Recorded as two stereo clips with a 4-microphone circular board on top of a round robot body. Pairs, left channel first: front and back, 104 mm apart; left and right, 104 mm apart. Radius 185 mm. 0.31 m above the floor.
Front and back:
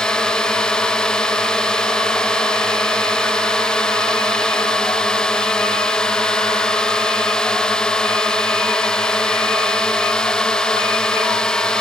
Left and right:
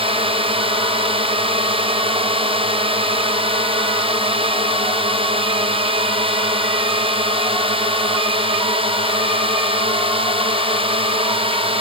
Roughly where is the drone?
Right.